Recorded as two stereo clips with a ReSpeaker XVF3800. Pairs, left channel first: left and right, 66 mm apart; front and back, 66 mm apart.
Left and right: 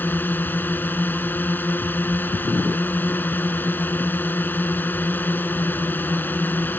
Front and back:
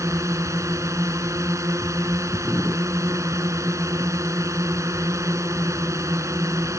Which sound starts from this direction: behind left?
A drone, at 0.0 s.